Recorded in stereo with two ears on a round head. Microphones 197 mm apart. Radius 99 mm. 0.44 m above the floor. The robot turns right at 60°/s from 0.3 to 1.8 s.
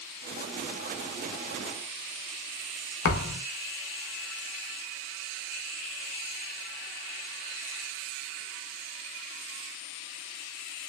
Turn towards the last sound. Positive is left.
turn(degrees=60)  # may be behind; listen again after turning